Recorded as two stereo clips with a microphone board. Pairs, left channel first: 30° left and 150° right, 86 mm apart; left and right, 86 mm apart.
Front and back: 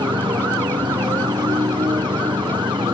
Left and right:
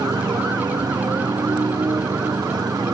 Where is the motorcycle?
130° right.